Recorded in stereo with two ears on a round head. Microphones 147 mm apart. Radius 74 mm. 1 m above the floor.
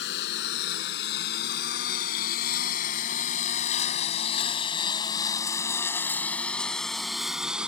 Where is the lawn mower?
75° left (ahead or behind); by 7.7 s 5° right (ahead or behind).